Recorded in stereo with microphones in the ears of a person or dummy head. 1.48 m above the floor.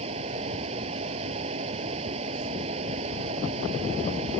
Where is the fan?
35° right (ahead or behind).